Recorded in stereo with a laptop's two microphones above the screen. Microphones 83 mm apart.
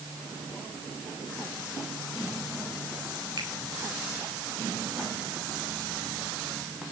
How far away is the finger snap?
About 4 m.